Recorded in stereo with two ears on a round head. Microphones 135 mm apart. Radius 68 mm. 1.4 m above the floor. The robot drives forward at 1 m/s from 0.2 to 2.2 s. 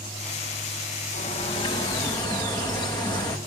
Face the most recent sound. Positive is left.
turn(degrees=30)  # may be behind; listen again after turning